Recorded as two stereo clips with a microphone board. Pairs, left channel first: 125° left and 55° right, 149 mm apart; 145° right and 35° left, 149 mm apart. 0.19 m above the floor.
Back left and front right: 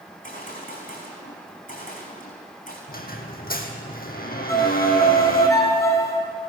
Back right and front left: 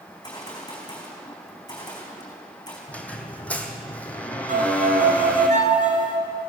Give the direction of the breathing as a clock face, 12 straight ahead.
I don't hear breathing.